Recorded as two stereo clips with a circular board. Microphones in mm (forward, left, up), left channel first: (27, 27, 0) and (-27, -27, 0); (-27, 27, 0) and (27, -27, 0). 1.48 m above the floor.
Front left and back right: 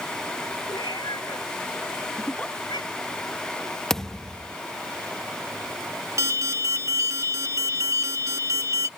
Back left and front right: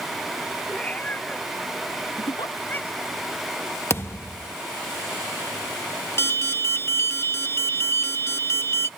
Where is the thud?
125° left.